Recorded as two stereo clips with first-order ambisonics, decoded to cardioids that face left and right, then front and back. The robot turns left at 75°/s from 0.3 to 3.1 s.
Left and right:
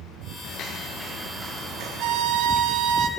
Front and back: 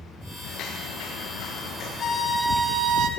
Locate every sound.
0.4 s footsteps: 55° left, 4 m; by 1.9 s 60° right, 5.5 m
2.0 s a violin: 55° right, 0.8 m; by 3.1 s 140° right, 0.8 m